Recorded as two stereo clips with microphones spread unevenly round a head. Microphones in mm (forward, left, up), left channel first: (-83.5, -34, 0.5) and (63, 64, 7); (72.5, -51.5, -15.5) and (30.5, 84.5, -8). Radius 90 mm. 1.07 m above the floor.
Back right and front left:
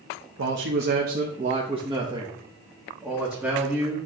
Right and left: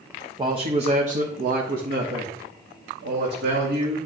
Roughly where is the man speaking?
Ahead left.